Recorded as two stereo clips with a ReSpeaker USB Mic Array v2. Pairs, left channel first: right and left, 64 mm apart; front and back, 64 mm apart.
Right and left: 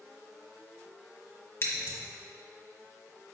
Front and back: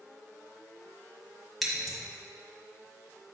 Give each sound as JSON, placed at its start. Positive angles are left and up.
{"t": 1.6, "sound": "scissors", "azimuth_deg": -95, "distance_m": 1.4}